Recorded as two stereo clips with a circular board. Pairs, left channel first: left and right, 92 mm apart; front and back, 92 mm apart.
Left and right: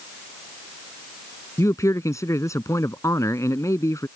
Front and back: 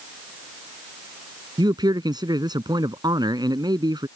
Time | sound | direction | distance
1.6 | a man speaking | 145° left | ?